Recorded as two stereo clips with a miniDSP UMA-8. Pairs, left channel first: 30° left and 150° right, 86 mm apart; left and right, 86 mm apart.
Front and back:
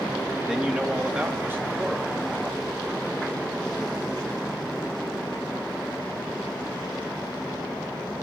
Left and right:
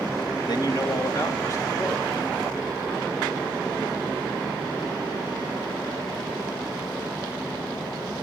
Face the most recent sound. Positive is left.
turn(degrees=155)